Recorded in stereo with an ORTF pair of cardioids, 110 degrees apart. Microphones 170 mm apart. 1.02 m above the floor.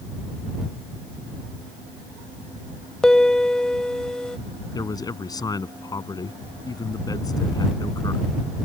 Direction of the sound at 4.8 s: 20° left.